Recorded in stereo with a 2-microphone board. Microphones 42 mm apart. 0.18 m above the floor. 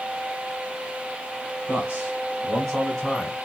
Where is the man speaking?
30° right (ahead or behind), 1.8 m; by 3.4 s 20° left (ahead or behind), 1.8 m.